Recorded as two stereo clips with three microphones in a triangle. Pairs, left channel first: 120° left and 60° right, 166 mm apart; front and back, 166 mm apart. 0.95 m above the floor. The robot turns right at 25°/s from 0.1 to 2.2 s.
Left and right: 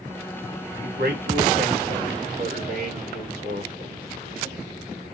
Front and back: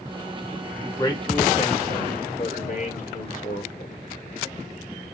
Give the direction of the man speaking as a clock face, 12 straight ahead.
2 o'clock.